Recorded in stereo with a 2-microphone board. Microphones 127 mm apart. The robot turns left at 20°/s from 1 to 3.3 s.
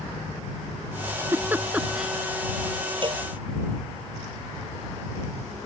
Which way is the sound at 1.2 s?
20° right (ahead or behind).